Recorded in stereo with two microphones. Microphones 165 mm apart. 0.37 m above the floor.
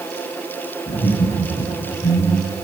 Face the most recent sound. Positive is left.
turn(degrees=65)  # may be behind; listen again after turning